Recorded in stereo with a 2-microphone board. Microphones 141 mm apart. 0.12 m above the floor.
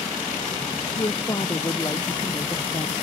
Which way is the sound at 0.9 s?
35° left (ahead or behind).